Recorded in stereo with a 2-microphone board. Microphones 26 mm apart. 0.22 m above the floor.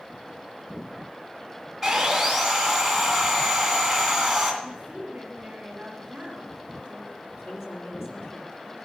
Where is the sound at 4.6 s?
35° right (ahead or behind), 3.5 m.